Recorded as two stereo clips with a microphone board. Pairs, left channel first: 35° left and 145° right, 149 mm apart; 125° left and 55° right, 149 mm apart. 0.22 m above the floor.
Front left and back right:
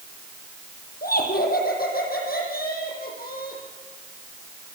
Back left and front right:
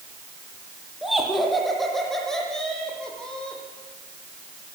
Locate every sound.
1.0 s laughter: 35° left, 8 m; by 3.6 s 40° left, 11 m